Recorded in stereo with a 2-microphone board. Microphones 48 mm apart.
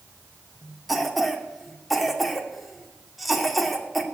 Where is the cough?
Centre (ahead or behind), 2.5 m.